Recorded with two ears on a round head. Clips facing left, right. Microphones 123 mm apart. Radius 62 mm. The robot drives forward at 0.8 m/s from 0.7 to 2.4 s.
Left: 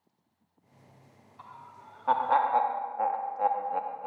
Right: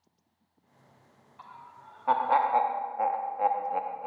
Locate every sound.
1.4 s laughter: centre (ahead or behind), 1.1 m; by 4.1 s 5° right (ahead or behind), 0.5 m